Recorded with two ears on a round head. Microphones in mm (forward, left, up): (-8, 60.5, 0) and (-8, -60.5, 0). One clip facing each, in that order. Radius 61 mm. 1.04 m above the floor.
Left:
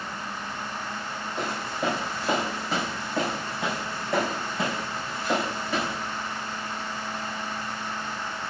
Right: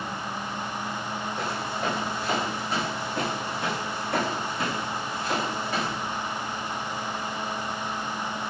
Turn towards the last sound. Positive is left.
turn(degrees=80)